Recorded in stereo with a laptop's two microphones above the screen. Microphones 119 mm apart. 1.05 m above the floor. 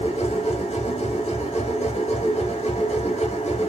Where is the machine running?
75° left (ahead or behind), 1.9 m.